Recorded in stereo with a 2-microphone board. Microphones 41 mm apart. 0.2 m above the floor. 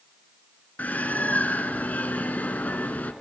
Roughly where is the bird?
Left.